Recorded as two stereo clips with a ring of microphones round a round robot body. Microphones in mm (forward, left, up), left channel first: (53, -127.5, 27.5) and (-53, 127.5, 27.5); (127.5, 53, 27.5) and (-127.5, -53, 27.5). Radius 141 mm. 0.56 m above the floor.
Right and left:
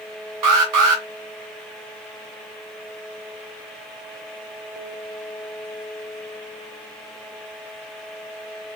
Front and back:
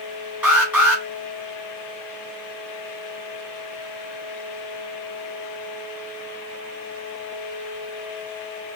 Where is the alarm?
120° left, 3 m.